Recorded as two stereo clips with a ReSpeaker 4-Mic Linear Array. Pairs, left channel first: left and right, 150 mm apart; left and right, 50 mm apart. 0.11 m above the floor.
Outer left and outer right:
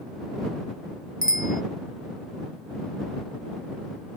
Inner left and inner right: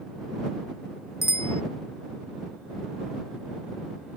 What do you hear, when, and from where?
1.2 s a bicycle bell: 70° left (ahead or behind)